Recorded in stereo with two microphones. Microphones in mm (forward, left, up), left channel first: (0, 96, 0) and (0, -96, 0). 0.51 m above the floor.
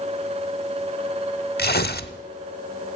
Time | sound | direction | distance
1.6 | tearing paper | 55° left (ahead or behind) | 0.6 m